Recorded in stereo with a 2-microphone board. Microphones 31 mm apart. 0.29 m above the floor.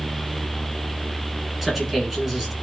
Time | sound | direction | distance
1.6 | a man speaking | 10° right (ahead or behind) | 3 m